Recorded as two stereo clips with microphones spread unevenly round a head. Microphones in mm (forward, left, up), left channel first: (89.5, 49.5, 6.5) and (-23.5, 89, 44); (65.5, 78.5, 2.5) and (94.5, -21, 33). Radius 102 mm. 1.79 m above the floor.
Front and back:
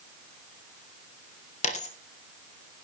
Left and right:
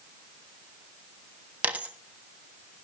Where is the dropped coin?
50° right, 1.3 m.